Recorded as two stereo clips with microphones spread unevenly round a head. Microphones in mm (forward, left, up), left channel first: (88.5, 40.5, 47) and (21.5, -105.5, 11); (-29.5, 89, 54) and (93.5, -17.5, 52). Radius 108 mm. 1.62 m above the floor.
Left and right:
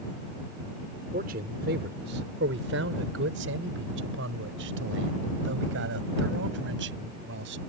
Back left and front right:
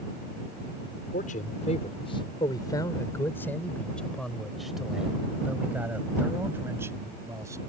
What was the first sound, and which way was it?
A man speaking, 170° right.